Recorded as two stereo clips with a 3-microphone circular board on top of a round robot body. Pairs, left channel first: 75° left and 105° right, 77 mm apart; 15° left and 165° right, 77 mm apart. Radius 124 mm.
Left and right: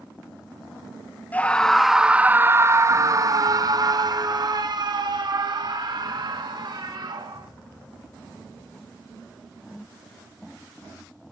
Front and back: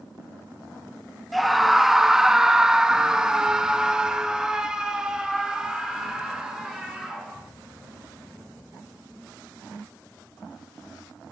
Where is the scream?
105° left, 0.9 m; by 7.5 s 85° right, 4 m.